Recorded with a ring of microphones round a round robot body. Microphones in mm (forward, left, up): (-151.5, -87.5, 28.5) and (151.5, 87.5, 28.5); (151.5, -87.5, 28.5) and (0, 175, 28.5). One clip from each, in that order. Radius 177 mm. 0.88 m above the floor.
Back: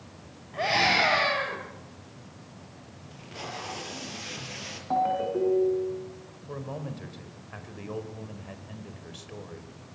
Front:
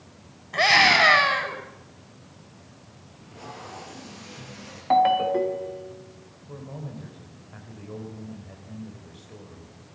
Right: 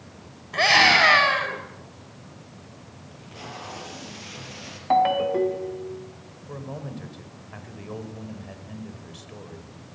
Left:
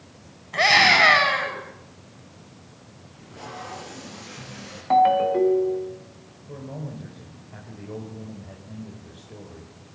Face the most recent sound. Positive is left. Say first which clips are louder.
# back 3 dB, right 1 dB
turn(degrees=-110)